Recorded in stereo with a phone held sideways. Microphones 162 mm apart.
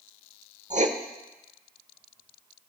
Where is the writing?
50° right (ahead or behind), 0.9 m.